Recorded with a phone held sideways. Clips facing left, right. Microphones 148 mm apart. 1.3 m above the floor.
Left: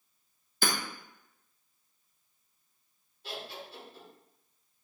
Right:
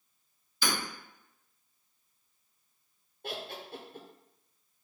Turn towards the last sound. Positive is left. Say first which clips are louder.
# right 2 dB
turn(degrees=-65)  # may be behind; listen again after turning